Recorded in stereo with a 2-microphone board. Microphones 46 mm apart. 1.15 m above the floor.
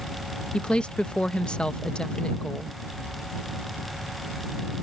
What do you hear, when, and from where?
0.5 s a woman speaking: 25° left (ahead or behind)